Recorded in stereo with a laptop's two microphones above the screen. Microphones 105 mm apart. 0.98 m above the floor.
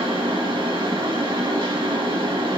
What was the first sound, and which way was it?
A fan, 55° right (ahead or behind).